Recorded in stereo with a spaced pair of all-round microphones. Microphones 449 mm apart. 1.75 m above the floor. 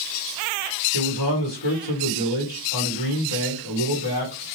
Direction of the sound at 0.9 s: 65° left (ahead or behind).